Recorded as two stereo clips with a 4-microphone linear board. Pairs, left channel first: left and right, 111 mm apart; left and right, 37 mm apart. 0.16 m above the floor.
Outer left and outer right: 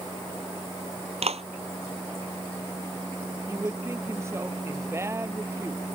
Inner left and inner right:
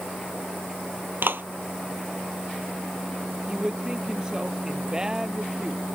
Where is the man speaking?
25° right (ahead or behind).